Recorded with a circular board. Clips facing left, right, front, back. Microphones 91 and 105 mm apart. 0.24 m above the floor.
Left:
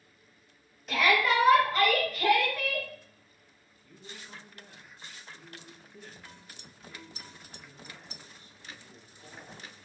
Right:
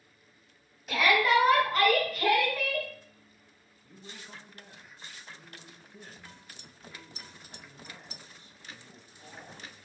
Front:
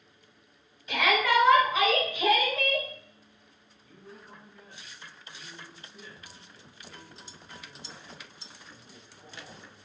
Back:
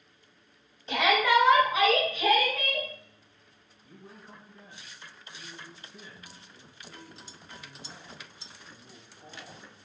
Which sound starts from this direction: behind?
A shout, at 0.9 s.